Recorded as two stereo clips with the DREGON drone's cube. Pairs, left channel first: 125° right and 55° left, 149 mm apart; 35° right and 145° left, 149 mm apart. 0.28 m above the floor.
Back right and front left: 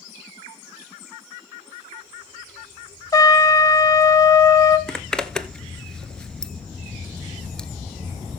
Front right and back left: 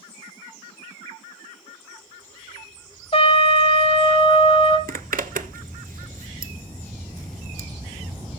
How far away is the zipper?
About 0.6 m.